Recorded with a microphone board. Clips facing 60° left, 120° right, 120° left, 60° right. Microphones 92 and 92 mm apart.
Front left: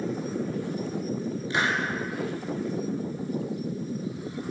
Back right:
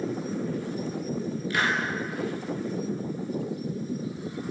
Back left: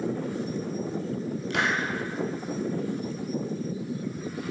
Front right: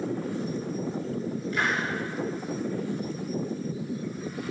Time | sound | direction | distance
1.5 | a hiss | 125° left | 5.5 m